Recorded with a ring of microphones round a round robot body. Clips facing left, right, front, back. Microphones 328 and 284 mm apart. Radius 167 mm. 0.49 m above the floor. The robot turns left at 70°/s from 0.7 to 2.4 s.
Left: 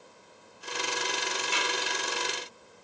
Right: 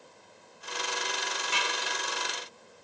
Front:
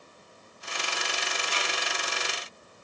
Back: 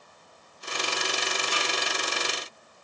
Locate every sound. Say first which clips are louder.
1.5 s a snare drum: left 1 dB, back 3 dB; 145° left, 9 m; by 1.7 s 130° left, 9 m